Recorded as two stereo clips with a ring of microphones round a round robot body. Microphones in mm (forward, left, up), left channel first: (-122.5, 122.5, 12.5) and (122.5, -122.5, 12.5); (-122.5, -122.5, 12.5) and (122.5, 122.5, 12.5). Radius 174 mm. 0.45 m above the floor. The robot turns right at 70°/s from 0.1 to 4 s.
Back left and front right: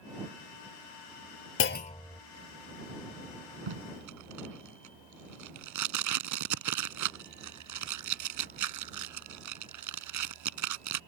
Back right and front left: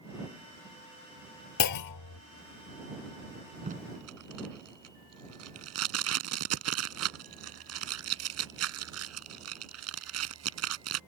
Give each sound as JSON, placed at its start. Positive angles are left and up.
{"t": 1.6, "sound": "a clunk", "azimuth_deg": -175}
{"t": 3.7, "sound": "tape being pulled", "azimuth_deg": -25}